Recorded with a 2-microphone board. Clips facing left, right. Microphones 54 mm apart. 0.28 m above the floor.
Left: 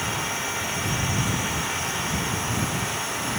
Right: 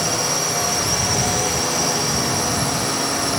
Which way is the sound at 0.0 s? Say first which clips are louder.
Right 5 dB; 75° right (ahead or behind).